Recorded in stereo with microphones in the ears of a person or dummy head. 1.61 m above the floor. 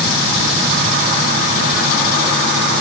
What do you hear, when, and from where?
Only background noise.